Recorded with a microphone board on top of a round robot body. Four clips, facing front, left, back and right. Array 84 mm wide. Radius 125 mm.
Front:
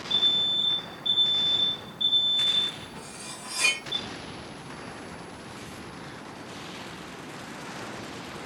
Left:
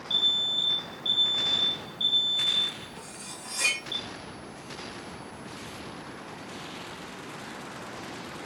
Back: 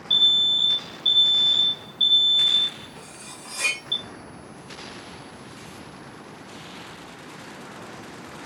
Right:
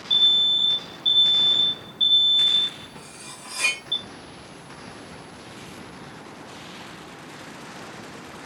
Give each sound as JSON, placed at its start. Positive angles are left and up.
{"t": 0.1, "sound": "an alarm", "azimuth_deg": -150, "distance_m": 0.8}
{"t": 3.0, "sound": "cutlery clinking", "azimuth_deg": -85, "distance_m": 0.8}